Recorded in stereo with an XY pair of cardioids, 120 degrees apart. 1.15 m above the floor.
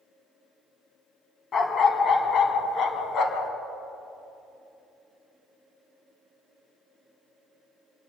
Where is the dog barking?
40° left, 3 m; by 3.5 s 65° left, 3 m.